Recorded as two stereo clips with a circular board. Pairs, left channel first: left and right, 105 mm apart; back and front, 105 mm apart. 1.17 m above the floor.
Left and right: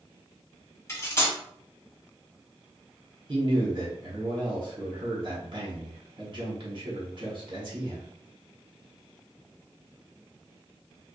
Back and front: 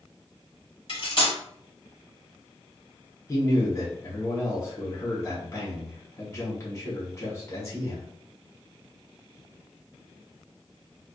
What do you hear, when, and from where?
0.9 s cutlery clinking: 150° left, 1.4 m
3.3 s a man speaking: 120° right, 1.1 m